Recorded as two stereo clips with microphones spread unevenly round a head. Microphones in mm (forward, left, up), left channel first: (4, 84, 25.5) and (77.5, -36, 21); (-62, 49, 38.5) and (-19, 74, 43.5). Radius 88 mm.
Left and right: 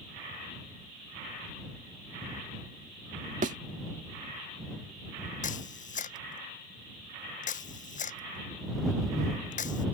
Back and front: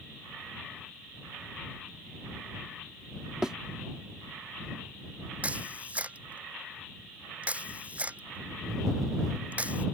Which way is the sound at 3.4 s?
50° right.